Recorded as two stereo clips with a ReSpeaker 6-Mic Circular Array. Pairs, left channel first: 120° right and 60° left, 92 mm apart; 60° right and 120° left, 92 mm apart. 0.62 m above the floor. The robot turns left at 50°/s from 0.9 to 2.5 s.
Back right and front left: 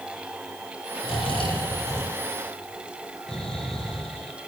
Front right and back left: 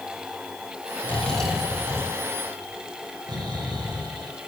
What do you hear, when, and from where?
1.0 s snoring: 130° right, 4 m; by 4.3 s 160° left, 4 m